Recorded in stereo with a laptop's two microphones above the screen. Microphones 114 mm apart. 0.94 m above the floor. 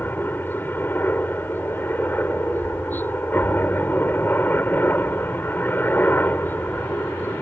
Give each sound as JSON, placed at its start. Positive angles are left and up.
{"t": 0.0, "sound": "a helicopter", "side_deg": 15}